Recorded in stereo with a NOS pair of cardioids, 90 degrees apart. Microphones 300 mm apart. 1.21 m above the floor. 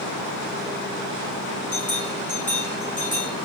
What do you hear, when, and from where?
1.7 s a bell: 25° left, 6.5 m